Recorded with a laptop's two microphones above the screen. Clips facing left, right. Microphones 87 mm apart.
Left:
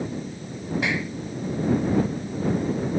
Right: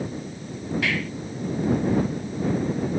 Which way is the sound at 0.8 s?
20° left (ahead or behind).